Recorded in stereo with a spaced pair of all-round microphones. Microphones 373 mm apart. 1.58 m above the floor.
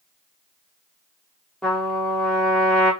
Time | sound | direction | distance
1.6 | a trumpet | centre (ahead or behind) | 0.8 m